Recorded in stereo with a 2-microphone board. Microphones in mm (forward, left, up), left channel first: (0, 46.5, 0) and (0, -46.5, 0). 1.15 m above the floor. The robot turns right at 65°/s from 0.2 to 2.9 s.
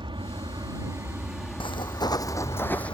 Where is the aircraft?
85° right; by 3.0 s 90° left.